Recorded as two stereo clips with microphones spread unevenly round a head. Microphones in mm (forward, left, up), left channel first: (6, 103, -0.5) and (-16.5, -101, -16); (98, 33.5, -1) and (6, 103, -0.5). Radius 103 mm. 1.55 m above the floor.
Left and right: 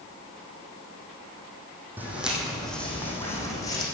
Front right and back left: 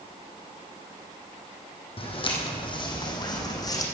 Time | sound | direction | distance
2.0 | footsteps | 15° right | 3 m